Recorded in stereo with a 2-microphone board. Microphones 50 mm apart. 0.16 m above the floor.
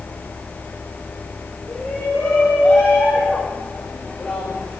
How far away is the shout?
About 8.5 m.